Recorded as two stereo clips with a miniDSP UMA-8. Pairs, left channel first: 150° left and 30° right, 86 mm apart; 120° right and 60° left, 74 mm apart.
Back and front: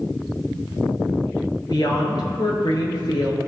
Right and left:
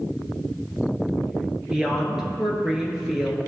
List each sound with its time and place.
1.7 s a woman speaking: 140° left, 2 m